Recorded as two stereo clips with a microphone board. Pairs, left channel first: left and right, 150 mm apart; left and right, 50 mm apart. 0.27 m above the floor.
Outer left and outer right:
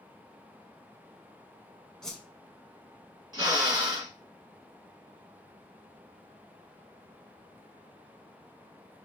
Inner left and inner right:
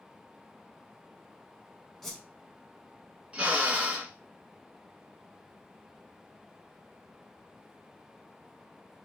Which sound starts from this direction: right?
A drill, at 3.3 s.